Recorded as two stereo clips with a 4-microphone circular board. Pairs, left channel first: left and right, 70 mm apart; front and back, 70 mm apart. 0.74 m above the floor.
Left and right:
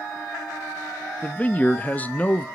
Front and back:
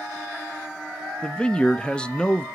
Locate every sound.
1.2 s a man speaking: 60° left, 0.6 m